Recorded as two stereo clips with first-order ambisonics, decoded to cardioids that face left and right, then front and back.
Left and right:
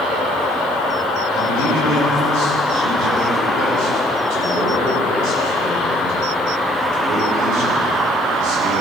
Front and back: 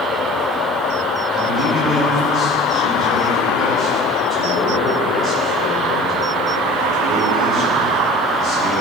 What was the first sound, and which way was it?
A man speaking, 65° right.